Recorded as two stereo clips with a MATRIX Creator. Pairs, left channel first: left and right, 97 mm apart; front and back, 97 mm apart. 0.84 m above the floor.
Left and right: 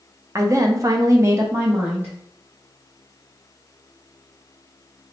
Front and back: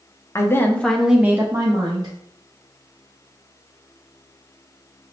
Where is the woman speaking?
45° right, 0.7 m; by 2.1 s 160° right, 0.9 m.